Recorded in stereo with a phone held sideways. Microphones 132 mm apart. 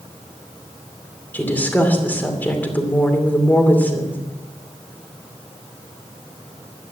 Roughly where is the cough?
No cough in this recording.